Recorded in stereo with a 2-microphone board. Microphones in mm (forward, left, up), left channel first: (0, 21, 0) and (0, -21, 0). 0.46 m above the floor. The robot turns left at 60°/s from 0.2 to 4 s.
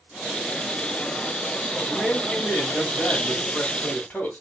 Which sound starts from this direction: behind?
A man speaking, at 1.9 s.